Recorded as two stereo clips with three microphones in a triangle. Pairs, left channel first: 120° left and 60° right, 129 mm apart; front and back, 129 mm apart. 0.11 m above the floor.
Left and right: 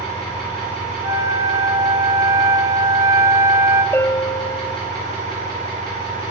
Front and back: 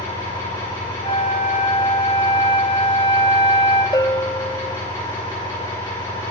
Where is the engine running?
55° left, 4.5 m.